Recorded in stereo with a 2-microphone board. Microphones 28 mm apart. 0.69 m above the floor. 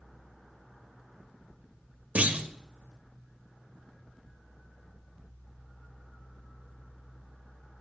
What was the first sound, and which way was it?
A clunk, 50° right (ahead or behind).